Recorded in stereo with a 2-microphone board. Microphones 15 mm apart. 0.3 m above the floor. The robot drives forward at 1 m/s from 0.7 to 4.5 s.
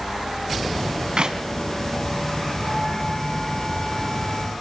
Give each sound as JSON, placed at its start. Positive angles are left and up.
{"t": 1.2, "sound": "a clap", "side_deg": -60, "distance_m": 2.0}